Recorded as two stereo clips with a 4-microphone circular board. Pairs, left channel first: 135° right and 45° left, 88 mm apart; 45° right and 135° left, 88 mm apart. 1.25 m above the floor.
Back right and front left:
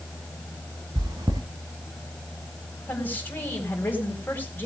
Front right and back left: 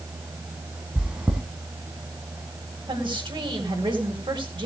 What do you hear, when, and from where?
0.9 s chewing: 60° left, 1.8 m
2.9 s a woman speaking: 155° left, 4 m